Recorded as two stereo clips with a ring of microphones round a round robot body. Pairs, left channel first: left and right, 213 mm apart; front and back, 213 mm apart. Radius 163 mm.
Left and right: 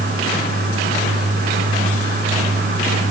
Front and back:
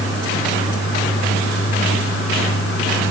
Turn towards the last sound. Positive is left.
No sound to turn to.